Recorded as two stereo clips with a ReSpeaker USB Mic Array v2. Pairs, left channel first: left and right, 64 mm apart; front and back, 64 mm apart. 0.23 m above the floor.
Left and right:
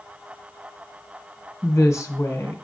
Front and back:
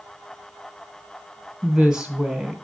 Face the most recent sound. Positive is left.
turn(degrees=105)